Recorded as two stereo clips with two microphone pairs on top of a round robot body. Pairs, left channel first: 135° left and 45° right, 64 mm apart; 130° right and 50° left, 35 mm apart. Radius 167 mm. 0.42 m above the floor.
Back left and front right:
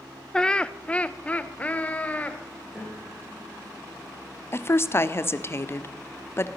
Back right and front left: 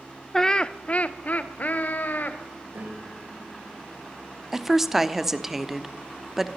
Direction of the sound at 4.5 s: 135° left.